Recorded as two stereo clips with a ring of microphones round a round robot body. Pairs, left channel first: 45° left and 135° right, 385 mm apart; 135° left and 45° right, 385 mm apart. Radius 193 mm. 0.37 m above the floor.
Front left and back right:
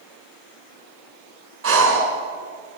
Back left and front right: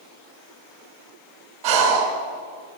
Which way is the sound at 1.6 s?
75° right.